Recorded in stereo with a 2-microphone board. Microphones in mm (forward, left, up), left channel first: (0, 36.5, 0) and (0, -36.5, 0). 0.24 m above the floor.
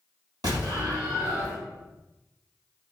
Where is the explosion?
60° right (ahead or behind), 2 m.